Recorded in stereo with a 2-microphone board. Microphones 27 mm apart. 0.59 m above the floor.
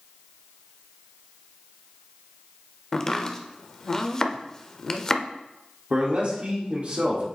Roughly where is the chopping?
Left.